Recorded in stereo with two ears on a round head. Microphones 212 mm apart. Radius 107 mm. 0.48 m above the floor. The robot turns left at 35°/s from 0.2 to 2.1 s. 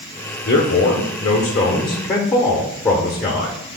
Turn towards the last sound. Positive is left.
turn(degrees=15)